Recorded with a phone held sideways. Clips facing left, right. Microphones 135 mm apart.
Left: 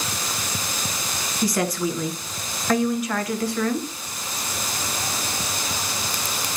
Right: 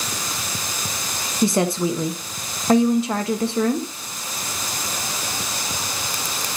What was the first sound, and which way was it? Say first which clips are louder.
A woman speaking: right 4 dB; 30° right (ahead or behind).